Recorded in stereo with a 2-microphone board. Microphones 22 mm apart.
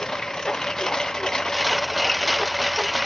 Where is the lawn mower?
30° left (ahead or behind); by 3.1 s 25° left (ahead or behind).